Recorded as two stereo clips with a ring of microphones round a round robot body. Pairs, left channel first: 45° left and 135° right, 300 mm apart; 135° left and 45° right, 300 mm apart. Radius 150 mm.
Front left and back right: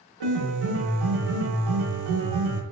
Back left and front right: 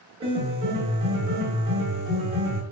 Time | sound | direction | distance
0.2 | a piano | 120° right | 0.8 m